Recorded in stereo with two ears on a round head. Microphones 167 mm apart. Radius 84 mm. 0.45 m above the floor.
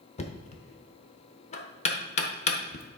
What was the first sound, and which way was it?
Knocking, 35° left (ahead or behind).